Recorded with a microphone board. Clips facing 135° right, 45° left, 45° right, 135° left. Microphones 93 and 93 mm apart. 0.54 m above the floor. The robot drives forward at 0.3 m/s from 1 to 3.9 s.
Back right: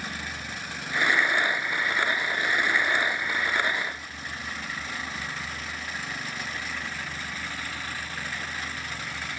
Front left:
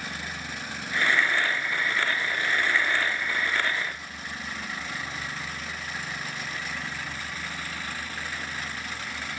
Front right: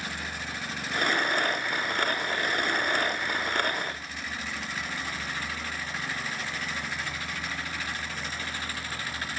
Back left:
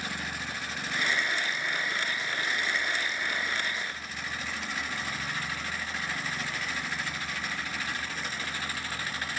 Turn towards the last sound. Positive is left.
No sound to turn to.